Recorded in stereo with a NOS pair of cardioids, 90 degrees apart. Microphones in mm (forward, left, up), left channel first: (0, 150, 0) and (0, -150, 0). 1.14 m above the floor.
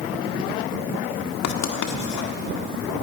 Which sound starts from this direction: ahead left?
Writing, at 1.4 s.